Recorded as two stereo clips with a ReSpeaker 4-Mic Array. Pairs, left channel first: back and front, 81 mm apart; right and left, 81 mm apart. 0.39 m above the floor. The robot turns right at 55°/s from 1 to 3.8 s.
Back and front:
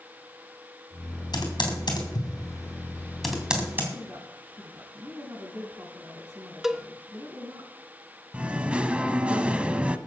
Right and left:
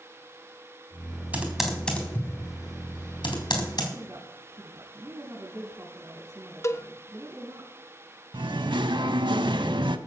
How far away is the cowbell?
About 0.6 m.